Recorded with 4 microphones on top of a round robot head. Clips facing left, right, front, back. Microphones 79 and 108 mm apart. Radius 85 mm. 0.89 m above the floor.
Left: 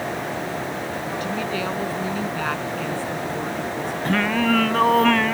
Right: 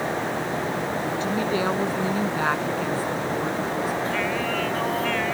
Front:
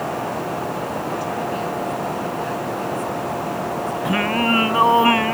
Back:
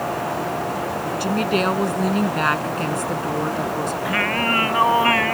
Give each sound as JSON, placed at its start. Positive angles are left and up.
{"t": 1.2, "sound": "a woman speaking", "azimuth_deg": -160}
{"t": 4.0, "sound": "singing", "azimuth_deg": 65}